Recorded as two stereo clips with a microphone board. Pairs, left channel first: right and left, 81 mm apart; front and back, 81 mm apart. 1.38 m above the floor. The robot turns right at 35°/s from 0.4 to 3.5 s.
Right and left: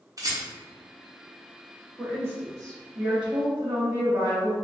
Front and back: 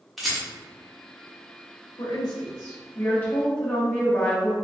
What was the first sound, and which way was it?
A rattle, 90° left.